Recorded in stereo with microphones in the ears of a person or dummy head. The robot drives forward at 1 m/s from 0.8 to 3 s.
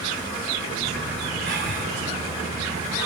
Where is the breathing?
60° right (ahead or behind), 3.5 m; by 1.9 s 55° right (ahead or behind), 4 m.